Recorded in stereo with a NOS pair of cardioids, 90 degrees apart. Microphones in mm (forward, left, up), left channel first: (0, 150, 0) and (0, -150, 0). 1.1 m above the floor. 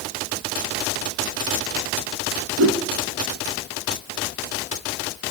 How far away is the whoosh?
About 2 m.